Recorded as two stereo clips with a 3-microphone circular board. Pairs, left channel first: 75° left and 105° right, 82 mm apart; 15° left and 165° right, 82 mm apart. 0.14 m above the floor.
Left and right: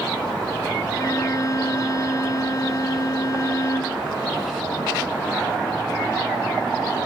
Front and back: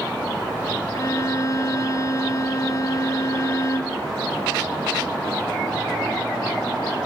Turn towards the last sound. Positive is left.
turn(degrees=45)